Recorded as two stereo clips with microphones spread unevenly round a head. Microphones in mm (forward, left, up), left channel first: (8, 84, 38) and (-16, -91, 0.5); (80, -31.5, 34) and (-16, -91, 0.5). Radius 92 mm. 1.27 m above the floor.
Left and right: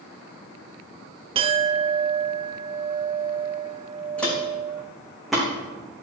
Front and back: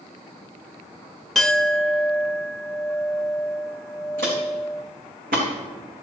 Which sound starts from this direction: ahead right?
A clink, at 1.4 s.